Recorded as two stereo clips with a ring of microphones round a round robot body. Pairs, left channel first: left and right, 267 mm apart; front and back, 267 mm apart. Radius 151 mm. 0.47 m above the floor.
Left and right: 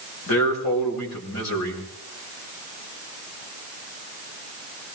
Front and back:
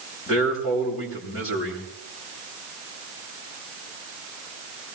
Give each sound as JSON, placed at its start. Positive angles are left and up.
{"t": 0.3, "sound": "a man speaking", "azimuth_deg": 65, "distance_m": 7.0}